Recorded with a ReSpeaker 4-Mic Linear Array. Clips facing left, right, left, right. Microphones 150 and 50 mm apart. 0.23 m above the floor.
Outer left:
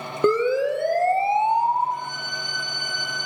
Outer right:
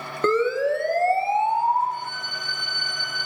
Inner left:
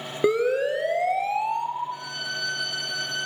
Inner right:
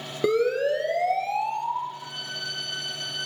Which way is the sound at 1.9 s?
80° left.